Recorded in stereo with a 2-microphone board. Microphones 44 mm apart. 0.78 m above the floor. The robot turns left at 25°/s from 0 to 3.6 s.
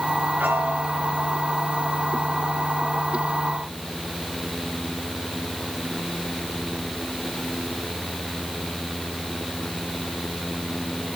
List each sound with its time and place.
0.4 s a piano: 45° right (ahead or behind), 1.7 m; by 1.5 s 25° right (ahead or behind), 1.7 m